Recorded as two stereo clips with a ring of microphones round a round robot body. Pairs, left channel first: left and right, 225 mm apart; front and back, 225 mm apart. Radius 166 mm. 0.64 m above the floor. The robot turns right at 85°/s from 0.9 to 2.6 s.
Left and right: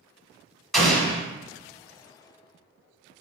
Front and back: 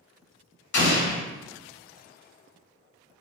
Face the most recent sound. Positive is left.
turn(degrees=145)